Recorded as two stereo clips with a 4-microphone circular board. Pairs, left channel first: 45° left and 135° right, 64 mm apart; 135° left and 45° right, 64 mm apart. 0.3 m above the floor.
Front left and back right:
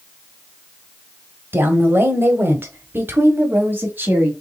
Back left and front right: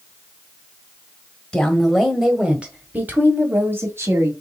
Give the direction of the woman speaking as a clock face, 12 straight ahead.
5 o'clock.